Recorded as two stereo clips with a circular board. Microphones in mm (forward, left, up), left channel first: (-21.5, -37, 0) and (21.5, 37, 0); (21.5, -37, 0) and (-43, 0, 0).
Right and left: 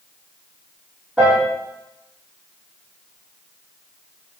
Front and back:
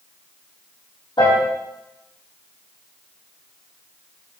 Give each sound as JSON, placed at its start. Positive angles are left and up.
{"t": 1.2, "sound": "a piano", "azimuth_deg": -15, "distance_m": 5.0}